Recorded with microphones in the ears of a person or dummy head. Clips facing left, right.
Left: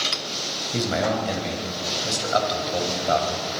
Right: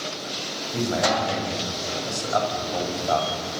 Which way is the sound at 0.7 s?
30° left (ahead or behind).